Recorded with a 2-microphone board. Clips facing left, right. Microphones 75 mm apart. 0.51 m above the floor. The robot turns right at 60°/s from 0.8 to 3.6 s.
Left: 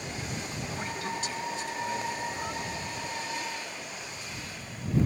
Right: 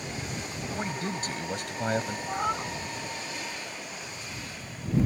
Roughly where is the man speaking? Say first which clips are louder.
Right 3 dB; behind right.